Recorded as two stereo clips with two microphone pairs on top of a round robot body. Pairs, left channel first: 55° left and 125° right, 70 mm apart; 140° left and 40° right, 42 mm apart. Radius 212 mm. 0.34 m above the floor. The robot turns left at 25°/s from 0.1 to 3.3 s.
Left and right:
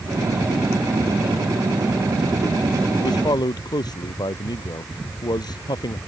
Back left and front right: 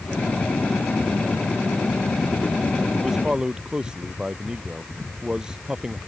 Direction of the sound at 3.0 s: 45° left.